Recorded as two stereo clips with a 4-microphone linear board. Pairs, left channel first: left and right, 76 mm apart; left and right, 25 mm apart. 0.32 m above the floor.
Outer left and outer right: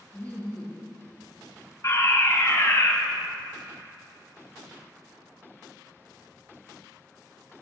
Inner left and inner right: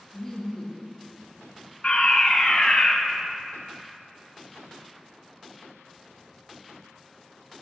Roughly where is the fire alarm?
Left.